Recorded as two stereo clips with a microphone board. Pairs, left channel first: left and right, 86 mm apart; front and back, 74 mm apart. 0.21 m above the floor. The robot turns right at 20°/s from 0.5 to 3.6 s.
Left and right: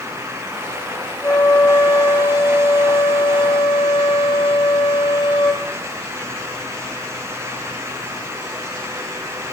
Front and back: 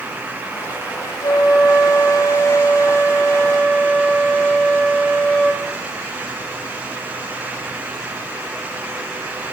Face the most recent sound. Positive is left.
turn(degrees=75)